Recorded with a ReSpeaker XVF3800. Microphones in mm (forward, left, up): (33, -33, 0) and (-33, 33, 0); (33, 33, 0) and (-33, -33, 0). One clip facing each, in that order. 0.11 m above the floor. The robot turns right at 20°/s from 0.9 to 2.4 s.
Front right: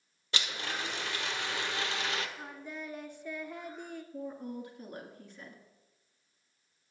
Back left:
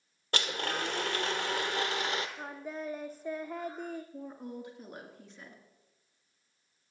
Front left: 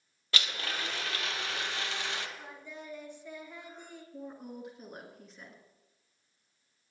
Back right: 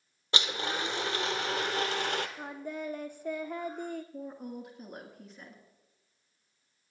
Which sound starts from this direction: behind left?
A woman speaking, at 4.1 s.